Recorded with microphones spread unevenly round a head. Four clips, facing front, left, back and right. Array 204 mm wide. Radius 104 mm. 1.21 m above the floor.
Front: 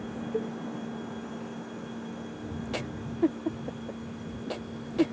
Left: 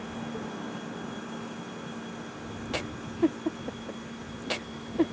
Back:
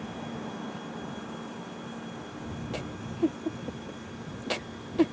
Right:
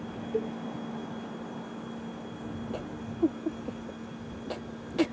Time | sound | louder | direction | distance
0.3 | a cowbell | right 6 dB, front 6 dB | 50° right | ?